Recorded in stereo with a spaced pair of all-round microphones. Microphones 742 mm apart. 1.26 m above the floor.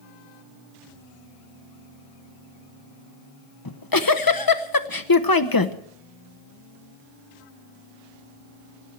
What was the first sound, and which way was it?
A giggle, 30° left (ahead or behind).